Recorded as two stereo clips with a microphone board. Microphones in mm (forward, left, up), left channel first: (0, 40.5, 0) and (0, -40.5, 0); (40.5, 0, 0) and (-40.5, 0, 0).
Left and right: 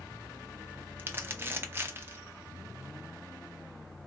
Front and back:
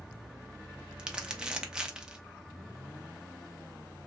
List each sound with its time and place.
1.0 s crumpling: 110° right, 0.5 m